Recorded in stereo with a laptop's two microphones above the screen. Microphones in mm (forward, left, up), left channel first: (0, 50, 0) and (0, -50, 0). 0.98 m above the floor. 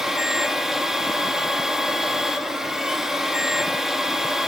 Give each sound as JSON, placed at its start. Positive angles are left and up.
{"t": 0.0, "sound": "a machine running", "side_deg": -5, "distance_m": 1.7}